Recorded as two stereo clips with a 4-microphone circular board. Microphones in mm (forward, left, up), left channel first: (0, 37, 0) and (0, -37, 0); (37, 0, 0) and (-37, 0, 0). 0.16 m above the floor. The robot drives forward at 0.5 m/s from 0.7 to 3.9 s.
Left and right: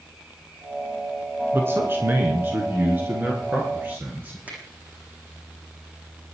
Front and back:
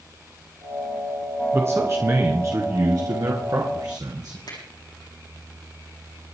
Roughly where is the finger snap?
Ahead.